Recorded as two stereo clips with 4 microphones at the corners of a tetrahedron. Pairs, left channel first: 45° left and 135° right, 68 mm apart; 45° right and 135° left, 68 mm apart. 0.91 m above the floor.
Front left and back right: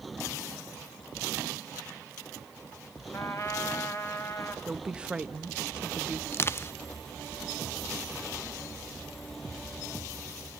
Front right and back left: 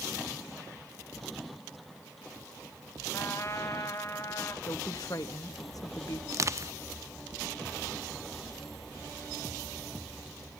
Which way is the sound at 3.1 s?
Straight ahead.